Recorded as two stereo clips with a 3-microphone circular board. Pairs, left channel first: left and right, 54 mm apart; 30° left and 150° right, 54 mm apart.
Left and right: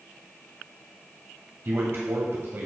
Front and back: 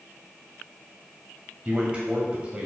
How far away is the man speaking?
About 1.4 m.